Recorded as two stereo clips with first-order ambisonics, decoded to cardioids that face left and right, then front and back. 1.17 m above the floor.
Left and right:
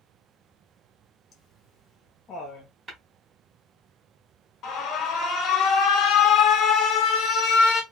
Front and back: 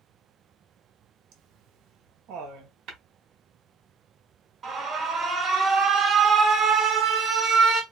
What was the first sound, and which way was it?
Laughter, 150° left.